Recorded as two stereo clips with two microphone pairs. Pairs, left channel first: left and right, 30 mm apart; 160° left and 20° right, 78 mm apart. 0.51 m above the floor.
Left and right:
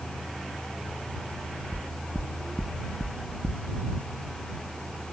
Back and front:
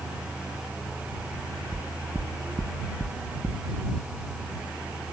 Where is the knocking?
10° left.